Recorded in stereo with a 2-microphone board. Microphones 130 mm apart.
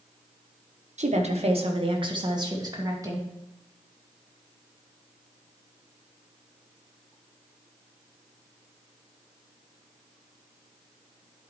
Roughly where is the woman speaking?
Right.